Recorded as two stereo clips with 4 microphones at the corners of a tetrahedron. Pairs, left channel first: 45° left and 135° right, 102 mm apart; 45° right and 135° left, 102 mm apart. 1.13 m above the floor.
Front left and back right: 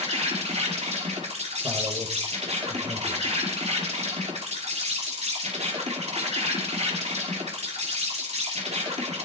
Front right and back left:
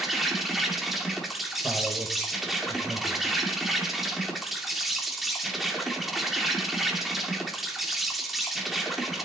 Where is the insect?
135° right, 2.5 m.